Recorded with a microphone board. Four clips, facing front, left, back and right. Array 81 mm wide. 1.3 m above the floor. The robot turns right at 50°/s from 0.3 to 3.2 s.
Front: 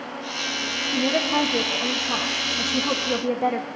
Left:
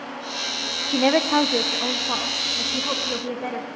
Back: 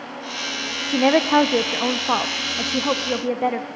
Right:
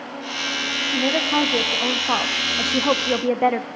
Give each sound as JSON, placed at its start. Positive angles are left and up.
{"t": 0.9, "sound": "a woman speaking", "azimuth_deg": 145, "distance_m": 0.5}